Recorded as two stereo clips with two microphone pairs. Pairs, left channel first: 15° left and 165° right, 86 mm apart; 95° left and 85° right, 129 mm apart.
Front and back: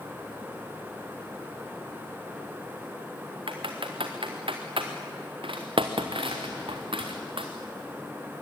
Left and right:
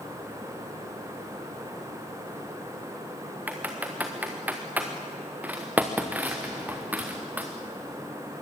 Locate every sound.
3.5 s typing on a keyboard: 165° right, 3 m